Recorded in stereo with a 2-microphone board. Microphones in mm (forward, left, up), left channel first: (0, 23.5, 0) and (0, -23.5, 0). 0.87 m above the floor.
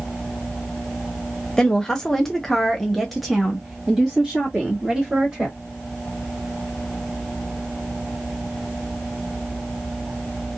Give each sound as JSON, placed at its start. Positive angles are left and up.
{"t": 1.6, "sound": "a woman speaking", "side_deg": 15, "distance_m": 1.1}